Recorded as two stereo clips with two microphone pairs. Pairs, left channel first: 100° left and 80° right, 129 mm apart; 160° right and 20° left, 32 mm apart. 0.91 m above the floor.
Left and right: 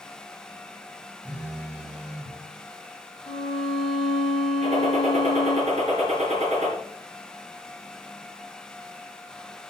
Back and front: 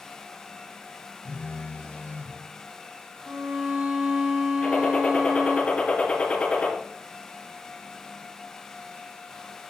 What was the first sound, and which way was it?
A phone buzzing, 160° right.